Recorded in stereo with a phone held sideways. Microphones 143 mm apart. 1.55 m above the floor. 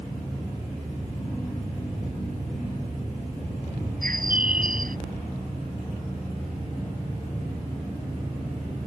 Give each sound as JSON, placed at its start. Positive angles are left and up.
{"t": 4.0, "sound": "a bird", "side_deg": -80}